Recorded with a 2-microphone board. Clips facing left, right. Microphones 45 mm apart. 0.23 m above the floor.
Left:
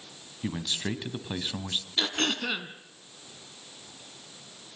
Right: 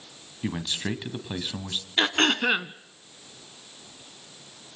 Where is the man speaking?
25° right (ahead or behind), 1.9 m; by 1.9 s 10° left (ahead or behind), 1.8 m.